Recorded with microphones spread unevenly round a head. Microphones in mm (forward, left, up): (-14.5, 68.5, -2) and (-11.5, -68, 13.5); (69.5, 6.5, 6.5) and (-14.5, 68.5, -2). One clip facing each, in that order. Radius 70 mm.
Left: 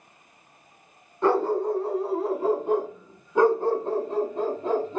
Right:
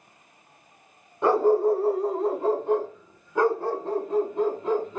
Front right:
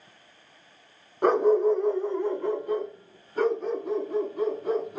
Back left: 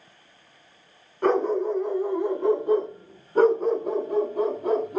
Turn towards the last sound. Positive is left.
turn(degrees=150)